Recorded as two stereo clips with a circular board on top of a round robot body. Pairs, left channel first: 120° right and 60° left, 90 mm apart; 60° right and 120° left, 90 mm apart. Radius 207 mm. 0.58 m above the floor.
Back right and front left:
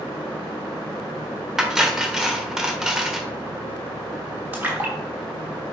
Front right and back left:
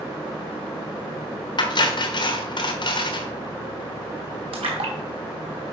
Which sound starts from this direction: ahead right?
Cutlery clinking, at 1.6 s.